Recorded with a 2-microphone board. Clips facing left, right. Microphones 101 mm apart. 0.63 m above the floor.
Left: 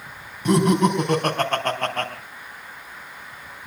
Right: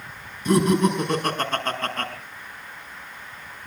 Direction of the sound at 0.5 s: 60° left (ahead or behind).